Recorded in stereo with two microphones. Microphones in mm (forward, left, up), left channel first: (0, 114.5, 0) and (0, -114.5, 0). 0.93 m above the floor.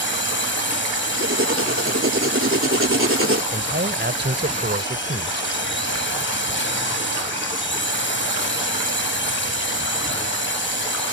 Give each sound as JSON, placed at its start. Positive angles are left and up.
{"t": 0.0, "sound": "a drone", "side_deg": 55}
{"t": 1.2, "sound": "writing", "side_deg": -65}
{"t": 3.5, "sound": "a man speaking", "side_deg": -50}